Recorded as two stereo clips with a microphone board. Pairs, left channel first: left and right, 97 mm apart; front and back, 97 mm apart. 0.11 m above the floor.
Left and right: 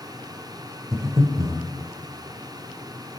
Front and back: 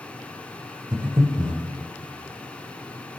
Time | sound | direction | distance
0.9 | breathing | 135° right | 1.2 m